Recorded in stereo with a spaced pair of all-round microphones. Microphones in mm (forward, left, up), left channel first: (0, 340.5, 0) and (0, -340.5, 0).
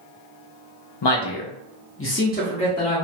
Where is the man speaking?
40° left (ahead or behind), 0.5 m; by 3.0 s 5° left (ahead or behind), 1.0 m.